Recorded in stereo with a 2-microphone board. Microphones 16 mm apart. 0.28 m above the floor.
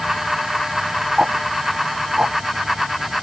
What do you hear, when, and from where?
1.2 s ticking: 50° right (ahead or behind)